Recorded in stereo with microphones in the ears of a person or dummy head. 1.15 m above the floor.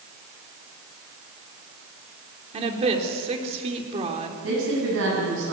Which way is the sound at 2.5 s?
35° right (ahead or behind).